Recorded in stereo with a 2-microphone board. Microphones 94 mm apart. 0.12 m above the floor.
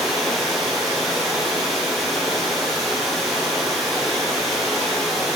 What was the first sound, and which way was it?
Running water, centre (ahead or behind).